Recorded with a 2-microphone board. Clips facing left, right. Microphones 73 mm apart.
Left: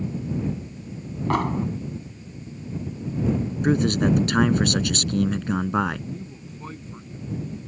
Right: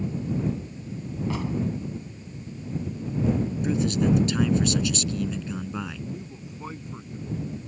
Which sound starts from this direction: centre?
A man speaking, at 6.1 s.